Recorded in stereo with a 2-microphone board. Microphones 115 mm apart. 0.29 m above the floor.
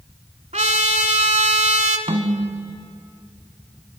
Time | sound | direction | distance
0.5 | a trumpet | 80° right | 1.0 m
2.1 | a snare drum | 65° right (ahead or behind) | 1.0 m